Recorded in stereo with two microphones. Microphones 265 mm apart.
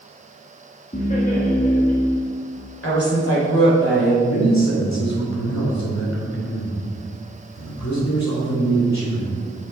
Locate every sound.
0.9 s laughter: 30° left (ahead or behind), 1.3 m
2.8 s a woman speaking: 60° left (ahead or behind), 3.5 m
4.2 s a man speaking: 85° left, 3 m